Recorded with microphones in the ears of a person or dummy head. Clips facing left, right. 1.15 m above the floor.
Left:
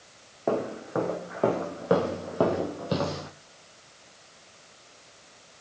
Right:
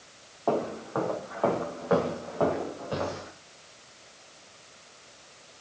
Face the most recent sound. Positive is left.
turn(degrees=60)  # may be behind; listen again after turning